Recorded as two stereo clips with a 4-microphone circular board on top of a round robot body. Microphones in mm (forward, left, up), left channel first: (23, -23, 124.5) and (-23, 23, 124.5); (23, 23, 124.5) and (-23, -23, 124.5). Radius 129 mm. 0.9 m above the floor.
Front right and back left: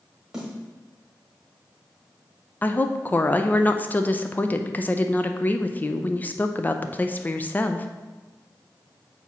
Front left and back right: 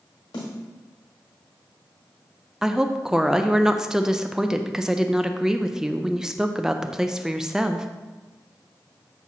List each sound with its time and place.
0.3 s a snare drum: 50° left, 1.4 m
2.6 s a woman speaking: 65° right, 0.6 m